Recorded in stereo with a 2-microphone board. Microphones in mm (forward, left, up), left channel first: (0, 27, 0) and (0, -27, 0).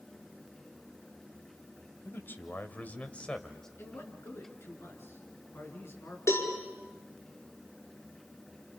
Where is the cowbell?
65° left (ahead or behind), 5 m.